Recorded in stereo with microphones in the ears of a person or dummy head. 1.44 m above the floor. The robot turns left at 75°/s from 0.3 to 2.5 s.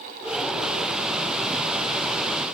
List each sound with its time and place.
Only background noise.